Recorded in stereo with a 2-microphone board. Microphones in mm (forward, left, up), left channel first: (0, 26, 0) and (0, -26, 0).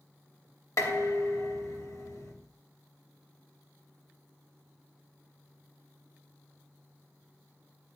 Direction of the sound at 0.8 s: 80° left.